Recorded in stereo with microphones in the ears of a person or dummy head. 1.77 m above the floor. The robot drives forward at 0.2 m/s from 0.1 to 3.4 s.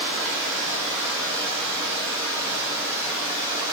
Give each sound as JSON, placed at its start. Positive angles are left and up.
{"t": 0.0, "sound": "running water", "side_deg": -40, "distance_m": 1.3}